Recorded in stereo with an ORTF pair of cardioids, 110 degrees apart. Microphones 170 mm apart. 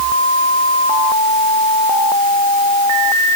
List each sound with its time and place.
Only background noise.